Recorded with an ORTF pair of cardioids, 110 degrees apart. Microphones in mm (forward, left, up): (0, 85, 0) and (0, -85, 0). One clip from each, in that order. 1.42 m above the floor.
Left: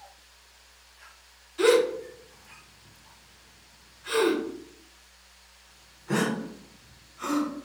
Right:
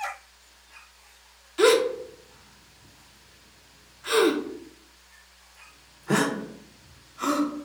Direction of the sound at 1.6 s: 35° right.